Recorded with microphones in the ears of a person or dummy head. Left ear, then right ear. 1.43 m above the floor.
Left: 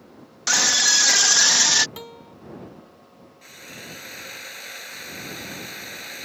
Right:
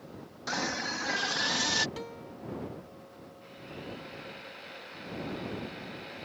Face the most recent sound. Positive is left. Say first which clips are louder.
# left 6 dB
turn(degrees=80)